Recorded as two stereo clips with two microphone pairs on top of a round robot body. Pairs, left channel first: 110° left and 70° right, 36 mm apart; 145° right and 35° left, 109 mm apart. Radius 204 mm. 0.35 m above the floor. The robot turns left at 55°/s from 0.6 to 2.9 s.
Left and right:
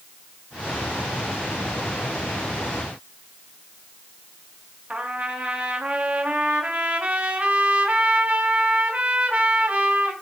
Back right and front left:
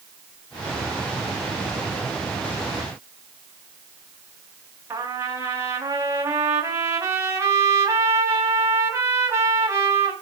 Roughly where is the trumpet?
Ahead right.